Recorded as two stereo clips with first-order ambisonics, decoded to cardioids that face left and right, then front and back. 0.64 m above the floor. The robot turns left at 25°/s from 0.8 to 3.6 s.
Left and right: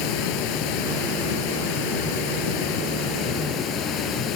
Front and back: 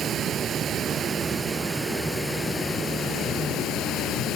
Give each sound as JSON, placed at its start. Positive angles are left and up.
{"t": 0.0, "sound": "running water", "azimuth_deg": 115}